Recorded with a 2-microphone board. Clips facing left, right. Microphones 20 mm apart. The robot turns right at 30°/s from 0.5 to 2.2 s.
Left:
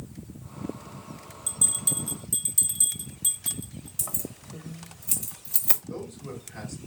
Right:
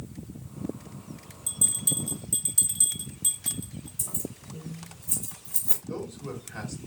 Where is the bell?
15° left (ahead or behind), 1.1 m; by 3.9 s 5° right (ahead or behind), 1.1 m.